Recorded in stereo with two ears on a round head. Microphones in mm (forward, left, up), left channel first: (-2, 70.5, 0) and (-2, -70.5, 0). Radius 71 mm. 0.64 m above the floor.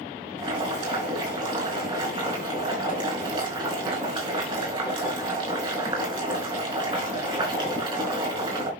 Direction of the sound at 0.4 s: 35° right (ahead or behind).